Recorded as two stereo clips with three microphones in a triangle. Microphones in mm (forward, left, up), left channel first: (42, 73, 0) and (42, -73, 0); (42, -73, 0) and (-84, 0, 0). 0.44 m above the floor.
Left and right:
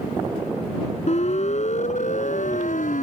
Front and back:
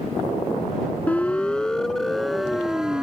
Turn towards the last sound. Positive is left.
turn(degrees=65)